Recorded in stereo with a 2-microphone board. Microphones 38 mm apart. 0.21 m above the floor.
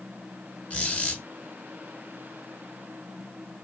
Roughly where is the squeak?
Left.